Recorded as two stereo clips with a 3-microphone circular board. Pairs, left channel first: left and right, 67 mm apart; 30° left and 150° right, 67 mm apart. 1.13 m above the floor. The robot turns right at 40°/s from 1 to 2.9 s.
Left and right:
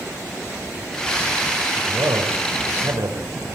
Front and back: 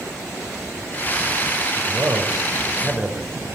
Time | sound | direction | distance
1.8 | a man speaking | 115° right | 5 m